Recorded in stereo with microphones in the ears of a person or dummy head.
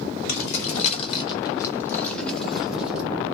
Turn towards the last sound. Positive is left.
turn(degrees=0)  # may be behind; listen again after turning